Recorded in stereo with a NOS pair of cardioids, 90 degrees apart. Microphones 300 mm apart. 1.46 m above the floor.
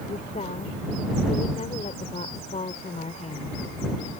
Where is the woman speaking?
25° left.